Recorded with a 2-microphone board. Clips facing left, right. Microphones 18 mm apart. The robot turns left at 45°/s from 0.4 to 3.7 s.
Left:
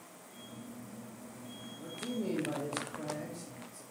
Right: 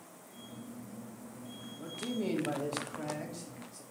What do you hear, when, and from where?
1.8 s a man speaking: 55° right, 1.3 m; by 3.8 s 140° right, 1.3 m